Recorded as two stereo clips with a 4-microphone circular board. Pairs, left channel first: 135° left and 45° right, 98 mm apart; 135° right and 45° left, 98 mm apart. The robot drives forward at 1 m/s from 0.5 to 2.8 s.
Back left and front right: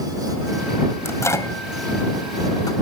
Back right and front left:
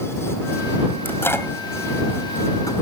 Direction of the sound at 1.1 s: 175° left.